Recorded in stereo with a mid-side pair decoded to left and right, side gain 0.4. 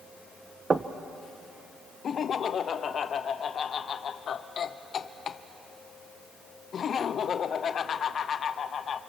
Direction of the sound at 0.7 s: 35° right.